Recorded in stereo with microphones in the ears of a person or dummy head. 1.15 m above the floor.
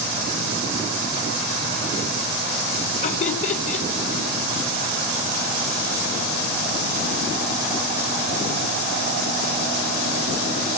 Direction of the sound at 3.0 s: 35° left (ahead or behind).